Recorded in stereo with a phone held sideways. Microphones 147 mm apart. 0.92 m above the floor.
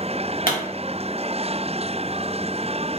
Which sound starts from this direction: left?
A pop, at 0.5 s.